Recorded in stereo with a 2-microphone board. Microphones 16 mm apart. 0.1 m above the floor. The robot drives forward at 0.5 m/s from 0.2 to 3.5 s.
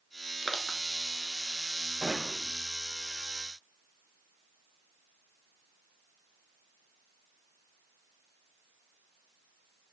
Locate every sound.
0.4 s crushing: centre (ahead or behind), 1.0 m
2.0 s a gunshot: 45° right (ahead or behind), 6 m; by 2.5 s 40° right (ahead or behind), 6.5 m